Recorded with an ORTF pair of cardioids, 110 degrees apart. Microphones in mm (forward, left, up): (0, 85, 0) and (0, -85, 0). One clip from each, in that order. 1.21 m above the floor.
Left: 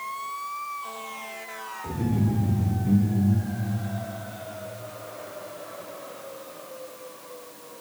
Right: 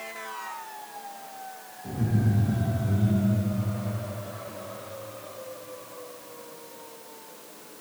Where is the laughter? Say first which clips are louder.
Left 1 dB; 50° left, 4 m.